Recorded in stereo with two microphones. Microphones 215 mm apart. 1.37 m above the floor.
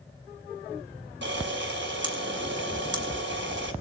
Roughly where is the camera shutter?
Right.